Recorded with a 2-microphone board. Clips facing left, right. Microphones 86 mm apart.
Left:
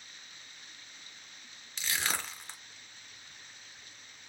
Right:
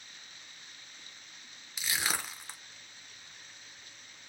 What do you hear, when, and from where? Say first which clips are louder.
1.8 s crushing: even; 10° right (ahead or behind), 0.9 m